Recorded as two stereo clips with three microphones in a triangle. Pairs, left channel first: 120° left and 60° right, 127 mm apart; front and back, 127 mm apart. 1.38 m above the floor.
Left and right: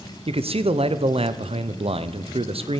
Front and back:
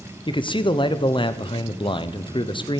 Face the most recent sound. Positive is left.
turn(degrees=-40)